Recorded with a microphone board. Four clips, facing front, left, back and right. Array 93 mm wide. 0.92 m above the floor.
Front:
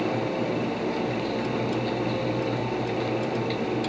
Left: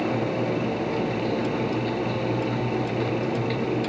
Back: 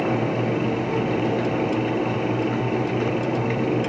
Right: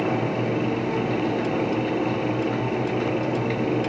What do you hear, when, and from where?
Only background noise.